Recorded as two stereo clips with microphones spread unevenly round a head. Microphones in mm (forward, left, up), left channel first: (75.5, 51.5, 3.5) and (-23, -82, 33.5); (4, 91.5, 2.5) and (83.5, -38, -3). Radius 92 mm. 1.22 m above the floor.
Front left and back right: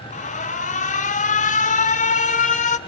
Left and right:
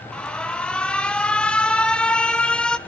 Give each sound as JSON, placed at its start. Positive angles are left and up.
{"t": 0.1, "sound": "an alarm", "azimuth_deg": 40, "distance_m": 1.2}